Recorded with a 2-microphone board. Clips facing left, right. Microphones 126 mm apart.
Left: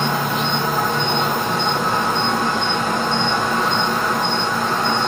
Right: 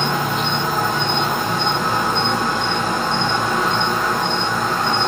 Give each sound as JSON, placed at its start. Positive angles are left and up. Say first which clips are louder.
{"t": 0.0, "sound": "an insect", "louder": "even", "side_deg": 0, "distance_m": 0.7}